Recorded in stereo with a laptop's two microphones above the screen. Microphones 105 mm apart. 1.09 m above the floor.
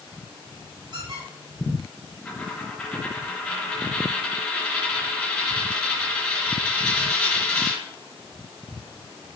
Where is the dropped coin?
20° left (ahead or behind), 4.5 m.